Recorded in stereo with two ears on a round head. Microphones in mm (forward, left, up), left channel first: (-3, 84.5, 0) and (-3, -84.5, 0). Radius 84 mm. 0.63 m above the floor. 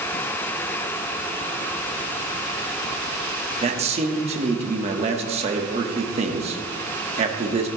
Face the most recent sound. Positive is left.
turn(degrees=-35)  # may be behind; listen again after turning